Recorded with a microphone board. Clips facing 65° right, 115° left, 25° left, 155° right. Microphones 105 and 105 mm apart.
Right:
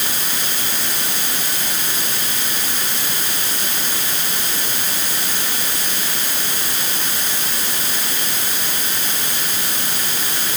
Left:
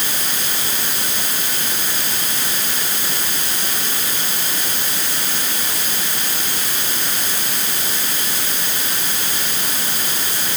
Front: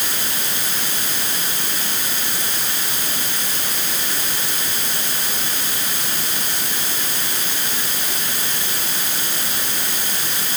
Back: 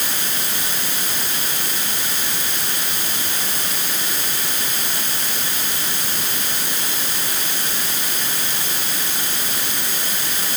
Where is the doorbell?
No doorbell in this recording.